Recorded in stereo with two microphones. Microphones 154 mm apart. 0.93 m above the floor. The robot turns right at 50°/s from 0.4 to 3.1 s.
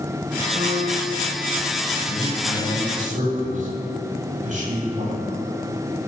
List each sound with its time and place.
0.6 s a piano: 70° right, 1.5 m; by 1.2 s 40° right, 1.5 m
2.1 s a man speaking: 175° right, 3 m; by 5.2 s 125° right, 3 m